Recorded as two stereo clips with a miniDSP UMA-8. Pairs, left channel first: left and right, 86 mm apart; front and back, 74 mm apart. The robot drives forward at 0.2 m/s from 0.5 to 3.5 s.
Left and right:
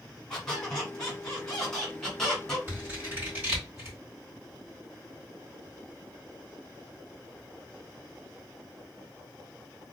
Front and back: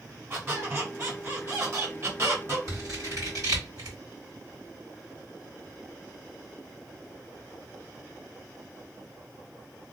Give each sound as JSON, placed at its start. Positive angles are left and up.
{"t": 0.3, "sound": "a squeak", "azimuth_deg": 170, "distance_m": 1.5}
{"t": 2.7, "sound": "scissors", "azimuth_deg": -155, "distance_m": 1.8}